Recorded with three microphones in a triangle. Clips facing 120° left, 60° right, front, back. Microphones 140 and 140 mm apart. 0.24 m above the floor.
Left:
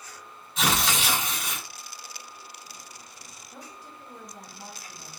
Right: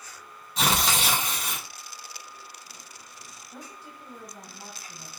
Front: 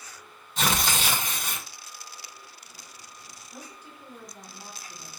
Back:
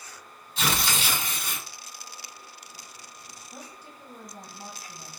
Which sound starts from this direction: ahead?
Tearing paper, at 0.6 s.